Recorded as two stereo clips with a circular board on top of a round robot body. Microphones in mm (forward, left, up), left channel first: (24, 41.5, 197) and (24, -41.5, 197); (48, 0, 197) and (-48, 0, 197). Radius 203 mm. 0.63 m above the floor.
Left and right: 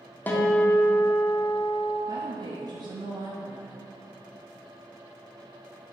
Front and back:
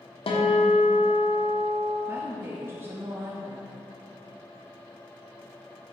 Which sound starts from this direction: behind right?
A woman speaking, at 2.1 s.